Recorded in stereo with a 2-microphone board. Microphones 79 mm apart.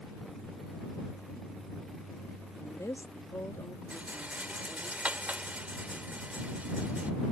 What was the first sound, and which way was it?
A woman speaking, 40° left (ahead or behind).